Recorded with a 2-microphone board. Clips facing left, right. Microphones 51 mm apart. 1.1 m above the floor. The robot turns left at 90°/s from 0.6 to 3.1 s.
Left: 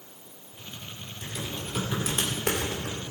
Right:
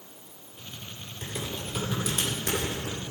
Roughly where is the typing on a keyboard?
Right.